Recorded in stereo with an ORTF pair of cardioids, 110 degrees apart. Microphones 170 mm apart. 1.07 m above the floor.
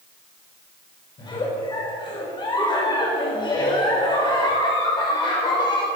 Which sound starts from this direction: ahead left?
A giggle, at 1.2 s.